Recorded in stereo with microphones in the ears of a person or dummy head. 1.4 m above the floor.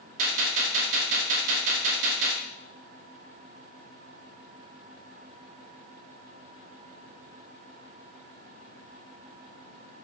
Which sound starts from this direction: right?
A gunshot, at 0.2 s.